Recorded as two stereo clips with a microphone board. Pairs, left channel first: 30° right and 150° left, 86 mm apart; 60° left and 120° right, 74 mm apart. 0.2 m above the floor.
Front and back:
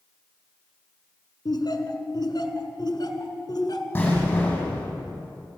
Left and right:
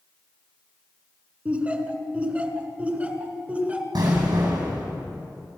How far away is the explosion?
About 6.5 m.